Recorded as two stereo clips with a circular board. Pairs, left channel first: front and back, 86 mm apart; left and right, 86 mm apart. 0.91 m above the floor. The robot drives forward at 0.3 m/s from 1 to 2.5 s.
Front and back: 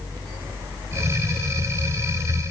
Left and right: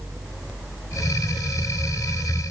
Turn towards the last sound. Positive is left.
No sound to turn to.